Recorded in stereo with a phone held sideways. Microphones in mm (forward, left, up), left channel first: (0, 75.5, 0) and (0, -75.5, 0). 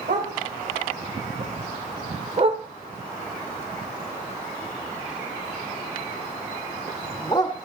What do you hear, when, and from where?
0.1 s a dog barking: 60° right (ahead or behind), 3.5 m; by 7.5 s 25° left (ahead or behind), 2 m